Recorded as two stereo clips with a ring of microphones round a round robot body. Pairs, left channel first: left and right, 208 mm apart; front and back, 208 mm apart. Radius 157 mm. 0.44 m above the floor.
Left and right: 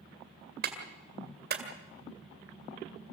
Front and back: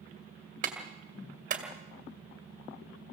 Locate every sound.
0.6 s a clap: 130° right, 2 m